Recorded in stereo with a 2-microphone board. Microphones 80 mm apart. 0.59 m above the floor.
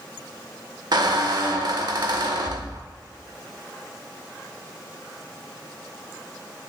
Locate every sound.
0.9 s a squeak: 60° right (ahead or behind), 0.6 m